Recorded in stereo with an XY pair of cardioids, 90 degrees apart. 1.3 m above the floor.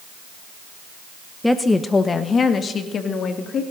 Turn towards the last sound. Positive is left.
turn(degrees=65)